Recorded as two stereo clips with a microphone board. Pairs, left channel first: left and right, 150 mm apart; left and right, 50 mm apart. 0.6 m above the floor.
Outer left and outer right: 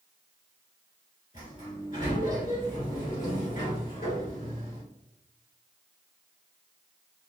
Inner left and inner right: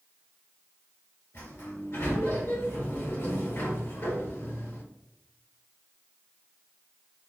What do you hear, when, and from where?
1.3 s a sliding door: 60° left (ahead or behind), 1.5 m